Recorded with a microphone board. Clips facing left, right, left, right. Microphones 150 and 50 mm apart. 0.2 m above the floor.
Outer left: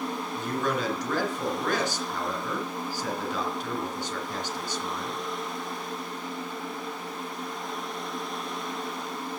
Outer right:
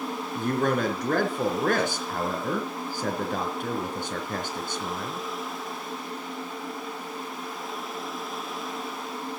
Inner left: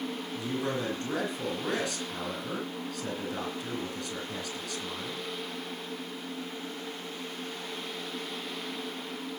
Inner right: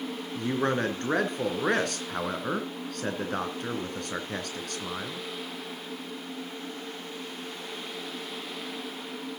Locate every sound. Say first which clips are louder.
0.3 s a man speaking: outer right 5 dB, inner right 6 dB; 50° right (ahead or behind), 3 m